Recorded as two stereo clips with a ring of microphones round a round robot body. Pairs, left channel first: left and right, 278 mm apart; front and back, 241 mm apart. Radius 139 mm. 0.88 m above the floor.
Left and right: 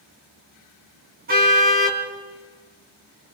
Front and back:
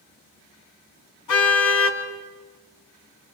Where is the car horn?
30° right, 4 m.